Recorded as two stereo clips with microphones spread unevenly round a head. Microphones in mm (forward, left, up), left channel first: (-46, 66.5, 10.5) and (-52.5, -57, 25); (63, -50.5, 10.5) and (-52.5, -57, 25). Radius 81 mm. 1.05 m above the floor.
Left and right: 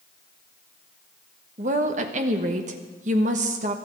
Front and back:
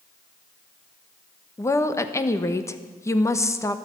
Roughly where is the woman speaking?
Ahead right.